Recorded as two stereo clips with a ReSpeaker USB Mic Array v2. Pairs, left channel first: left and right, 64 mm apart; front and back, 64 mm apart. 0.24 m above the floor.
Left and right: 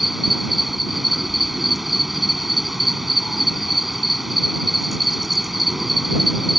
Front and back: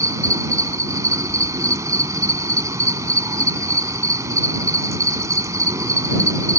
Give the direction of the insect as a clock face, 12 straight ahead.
6 o'clock.